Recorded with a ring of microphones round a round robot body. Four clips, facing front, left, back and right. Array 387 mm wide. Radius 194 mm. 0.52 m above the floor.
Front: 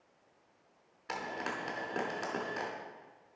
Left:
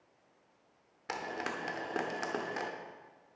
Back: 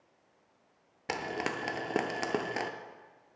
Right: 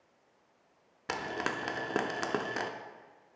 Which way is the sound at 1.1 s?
150° right.